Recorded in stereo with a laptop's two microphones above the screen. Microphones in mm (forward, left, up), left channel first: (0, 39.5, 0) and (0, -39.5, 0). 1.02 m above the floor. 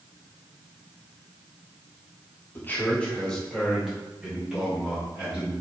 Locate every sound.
2.5 s a man speaking: 30° left (ahead or behind), 1.0 m; by 5.5 s 15° right (ahead or behind), 2.5 m